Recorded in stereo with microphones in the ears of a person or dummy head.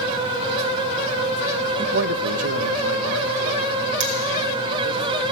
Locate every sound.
1.8 s a man speaking: 40° right (ahead or behind), 0.5 m; by 5.0 s 65° right (ahead or behind), 3 m
4.0 s cutlery clinking: 70° right (ahead or behind), 3.5 m